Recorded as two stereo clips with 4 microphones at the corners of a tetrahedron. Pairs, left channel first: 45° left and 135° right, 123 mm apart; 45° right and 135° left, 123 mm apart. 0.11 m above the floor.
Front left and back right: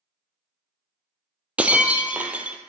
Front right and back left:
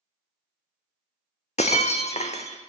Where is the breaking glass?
55° right, 0.6 m.